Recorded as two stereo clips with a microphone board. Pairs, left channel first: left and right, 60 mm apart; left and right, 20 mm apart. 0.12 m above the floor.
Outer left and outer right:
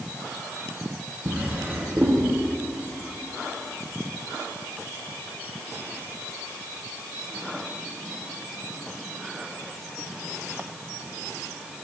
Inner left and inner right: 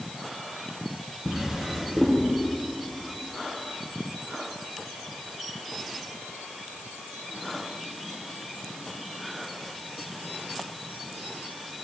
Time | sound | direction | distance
1.2 | a drawer | 30° right (ahead or behind) | 2.5 m